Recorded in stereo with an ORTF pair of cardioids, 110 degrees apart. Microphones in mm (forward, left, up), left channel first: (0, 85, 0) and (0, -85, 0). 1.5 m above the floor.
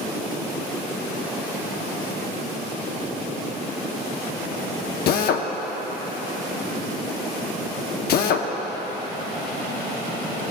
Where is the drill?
65° left, 0.7 m.